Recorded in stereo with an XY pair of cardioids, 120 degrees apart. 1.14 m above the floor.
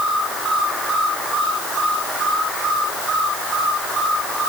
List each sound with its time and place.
Only background noise.